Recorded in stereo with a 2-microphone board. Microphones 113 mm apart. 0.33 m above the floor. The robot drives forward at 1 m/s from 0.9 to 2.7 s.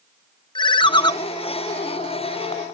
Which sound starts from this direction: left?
A ringtone, at 0.6 s.